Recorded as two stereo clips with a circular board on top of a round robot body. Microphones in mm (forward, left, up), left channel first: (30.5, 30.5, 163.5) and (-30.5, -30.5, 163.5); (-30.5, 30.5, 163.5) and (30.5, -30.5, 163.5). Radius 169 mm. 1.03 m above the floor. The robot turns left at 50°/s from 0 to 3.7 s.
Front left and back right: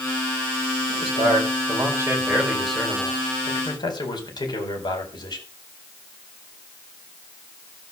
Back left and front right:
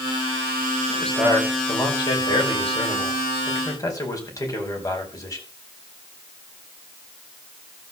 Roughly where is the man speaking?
Behind right.